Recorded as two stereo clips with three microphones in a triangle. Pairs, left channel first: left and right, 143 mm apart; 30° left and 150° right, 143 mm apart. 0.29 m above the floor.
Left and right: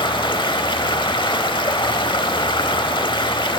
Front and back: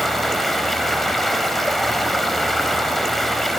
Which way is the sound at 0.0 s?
120° left.